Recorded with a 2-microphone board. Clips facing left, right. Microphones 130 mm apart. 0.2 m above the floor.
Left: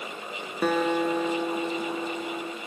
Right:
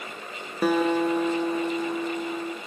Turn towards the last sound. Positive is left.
turn(degrees=-5)  # may be behind; listen again after turning